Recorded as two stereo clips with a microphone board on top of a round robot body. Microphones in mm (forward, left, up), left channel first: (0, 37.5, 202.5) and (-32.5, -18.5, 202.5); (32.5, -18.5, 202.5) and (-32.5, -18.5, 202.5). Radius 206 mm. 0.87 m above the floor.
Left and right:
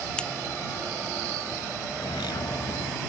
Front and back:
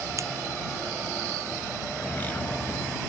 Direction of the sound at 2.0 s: 65° left.